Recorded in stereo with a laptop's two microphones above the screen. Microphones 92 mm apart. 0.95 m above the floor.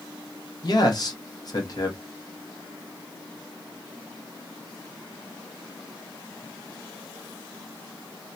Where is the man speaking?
45° left (ahead or behind), 0.8 m.